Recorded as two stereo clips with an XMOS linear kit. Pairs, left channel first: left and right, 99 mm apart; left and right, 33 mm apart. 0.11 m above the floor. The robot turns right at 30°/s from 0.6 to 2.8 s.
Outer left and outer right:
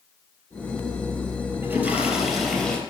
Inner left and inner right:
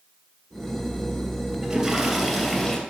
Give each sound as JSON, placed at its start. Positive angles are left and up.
{"t": 1.6, "sound": "a toilet flushing", "azimuth_deg": -25, "distance_m": 3.0}